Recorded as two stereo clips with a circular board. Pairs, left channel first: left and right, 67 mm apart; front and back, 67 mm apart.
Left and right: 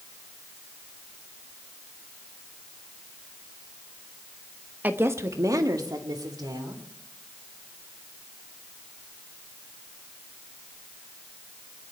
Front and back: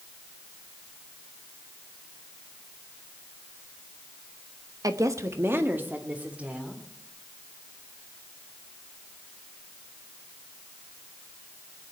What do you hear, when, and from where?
4.8 s a woman speaking: 155° right, 1.0 m; by 6.8 s 105° right, 3 m